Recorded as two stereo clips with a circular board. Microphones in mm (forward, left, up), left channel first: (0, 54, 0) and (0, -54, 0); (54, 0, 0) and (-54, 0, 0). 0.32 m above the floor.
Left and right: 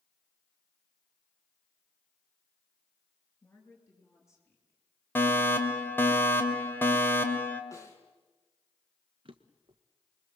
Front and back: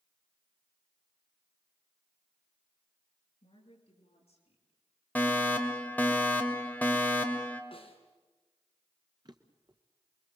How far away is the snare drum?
About 4 m.